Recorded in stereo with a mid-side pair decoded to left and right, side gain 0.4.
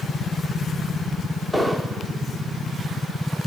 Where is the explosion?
5° left, 3 m.